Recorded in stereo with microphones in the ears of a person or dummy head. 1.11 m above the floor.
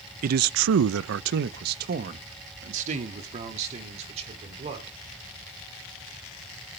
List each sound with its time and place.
0.2 s a man speaking: 45° right (ahead or behind), 0.5 m; by 5.0 s 35° right (ahead or behind), 3 m